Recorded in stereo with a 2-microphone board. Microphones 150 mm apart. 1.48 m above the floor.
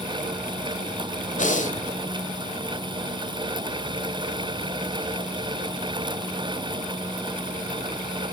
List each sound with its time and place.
1.4 s breathing: 55° left (ahead or behind), 2 m